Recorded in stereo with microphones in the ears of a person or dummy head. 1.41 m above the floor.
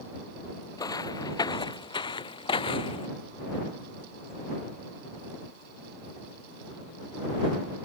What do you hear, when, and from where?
0.8 s footsteps: 20° left (ahead or behind); by 3.1 s 30° left (ahead or behind)